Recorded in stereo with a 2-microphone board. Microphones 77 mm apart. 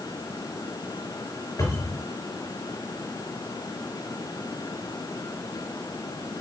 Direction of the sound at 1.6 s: 45° left (ahead or behind).